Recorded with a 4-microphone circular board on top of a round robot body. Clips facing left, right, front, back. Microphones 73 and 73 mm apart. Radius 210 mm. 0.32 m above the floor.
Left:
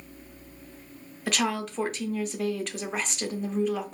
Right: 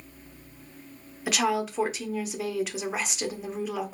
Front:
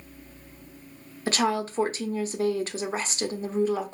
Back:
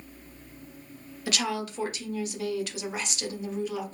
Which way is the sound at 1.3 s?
5° right.